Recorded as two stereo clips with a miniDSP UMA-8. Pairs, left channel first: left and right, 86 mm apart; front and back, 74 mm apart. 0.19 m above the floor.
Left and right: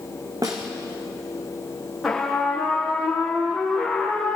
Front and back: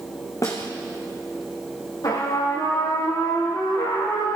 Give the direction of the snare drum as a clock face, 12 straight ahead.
1 o'clock.